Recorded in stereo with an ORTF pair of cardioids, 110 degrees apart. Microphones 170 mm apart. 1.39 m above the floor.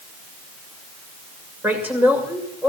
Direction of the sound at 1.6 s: 10° right.